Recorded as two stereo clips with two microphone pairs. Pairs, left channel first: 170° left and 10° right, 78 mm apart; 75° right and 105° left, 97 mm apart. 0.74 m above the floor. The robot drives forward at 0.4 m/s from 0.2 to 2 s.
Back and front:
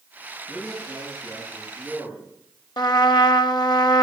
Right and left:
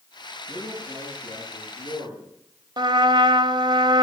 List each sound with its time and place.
0.5 s a man speaking: 100° right, 9 m; by 2.2 s 105° right, 9 m
2.8 s a trumpet: 145° left, 0.7 m